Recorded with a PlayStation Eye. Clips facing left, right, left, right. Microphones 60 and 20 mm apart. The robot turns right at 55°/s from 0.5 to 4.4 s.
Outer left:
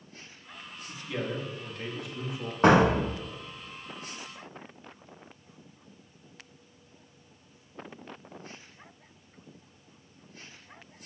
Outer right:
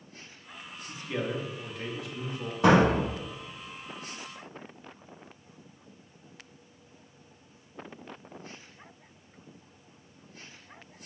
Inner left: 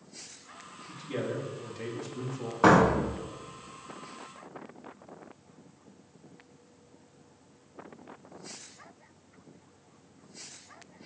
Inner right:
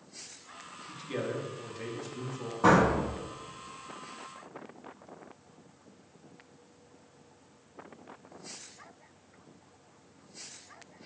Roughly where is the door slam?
Left.